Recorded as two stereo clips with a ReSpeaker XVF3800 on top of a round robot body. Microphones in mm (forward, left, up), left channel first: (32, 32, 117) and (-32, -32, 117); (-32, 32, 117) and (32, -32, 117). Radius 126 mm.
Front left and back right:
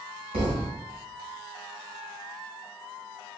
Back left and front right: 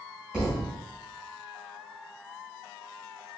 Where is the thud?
130° right, 1.6 m.